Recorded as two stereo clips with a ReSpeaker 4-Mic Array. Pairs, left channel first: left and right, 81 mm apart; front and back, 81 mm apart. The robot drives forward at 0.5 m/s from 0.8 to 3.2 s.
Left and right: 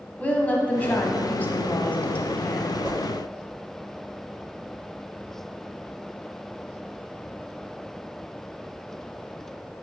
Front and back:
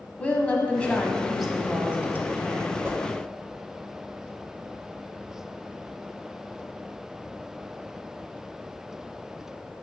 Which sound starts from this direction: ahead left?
A woman speaking, at 0.2 s.